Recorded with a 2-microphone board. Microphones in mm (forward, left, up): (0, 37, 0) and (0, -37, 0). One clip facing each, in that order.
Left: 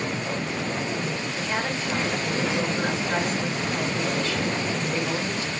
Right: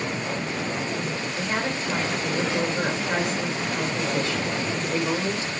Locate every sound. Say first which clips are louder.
1.4 s a woman speaking: right 2 dB; 25° right (ahead or behind), 2.5 m